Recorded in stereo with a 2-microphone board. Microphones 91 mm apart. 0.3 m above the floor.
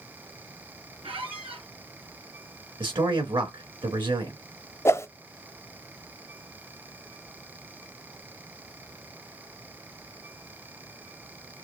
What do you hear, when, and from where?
1.0 s a squeak: 75° right (ahead or behind), 3 m
2.8 s a man speaking: 65° right (ahead or behind), 3 m
4.8 s a whoosh: 30° left (ahead or behind), 0.5 m